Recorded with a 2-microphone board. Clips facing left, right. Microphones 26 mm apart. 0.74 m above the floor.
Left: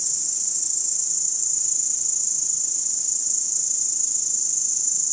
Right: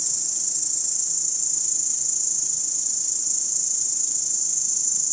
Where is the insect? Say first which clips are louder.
Even; 35° right (ahead or behind), 5 m.